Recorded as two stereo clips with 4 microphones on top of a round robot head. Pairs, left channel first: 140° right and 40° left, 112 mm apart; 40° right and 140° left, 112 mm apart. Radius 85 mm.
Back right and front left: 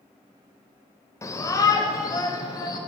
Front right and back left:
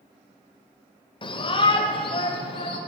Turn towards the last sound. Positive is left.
turn(degrees=-80)